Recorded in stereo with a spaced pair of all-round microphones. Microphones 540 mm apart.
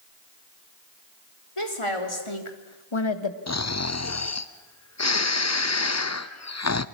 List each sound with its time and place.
1.6 s a woman speaking: 65° left (ahead or behind), 4 m; by 3.4 s 50° left (ahead or behind), 1.5 m
3.5 s snoring: 30° left (ahead or behind), 0.7 m